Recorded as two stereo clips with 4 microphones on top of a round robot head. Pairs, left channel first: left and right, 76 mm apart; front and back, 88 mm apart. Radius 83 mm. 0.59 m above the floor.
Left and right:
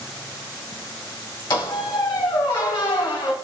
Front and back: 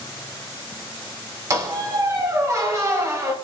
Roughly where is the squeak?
Behind left.